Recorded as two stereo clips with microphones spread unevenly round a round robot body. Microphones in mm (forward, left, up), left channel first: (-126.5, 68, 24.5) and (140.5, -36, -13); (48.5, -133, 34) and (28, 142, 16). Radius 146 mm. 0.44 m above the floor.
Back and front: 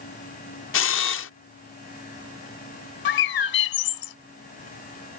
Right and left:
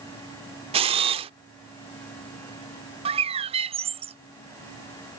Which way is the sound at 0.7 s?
140° left.